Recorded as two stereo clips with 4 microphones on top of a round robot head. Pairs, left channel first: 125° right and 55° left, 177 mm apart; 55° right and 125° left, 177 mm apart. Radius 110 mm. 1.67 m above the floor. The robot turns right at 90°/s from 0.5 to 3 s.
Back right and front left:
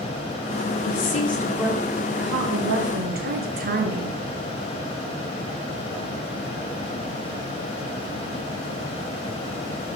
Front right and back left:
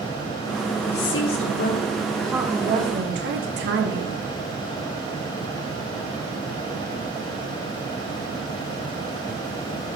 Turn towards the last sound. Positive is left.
turn(degrees=95)